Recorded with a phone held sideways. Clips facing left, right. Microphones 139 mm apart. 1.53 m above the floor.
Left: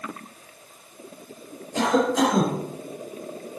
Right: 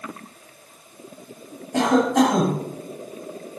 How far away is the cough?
About 4 m.